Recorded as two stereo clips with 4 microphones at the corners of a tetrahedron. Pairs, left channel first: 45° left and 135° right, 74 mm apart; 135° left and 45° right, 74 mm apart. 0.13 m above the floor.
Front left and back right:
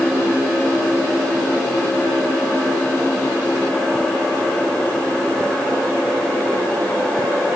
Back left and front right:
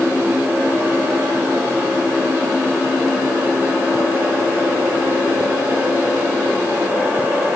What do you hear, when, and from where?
Only background noise.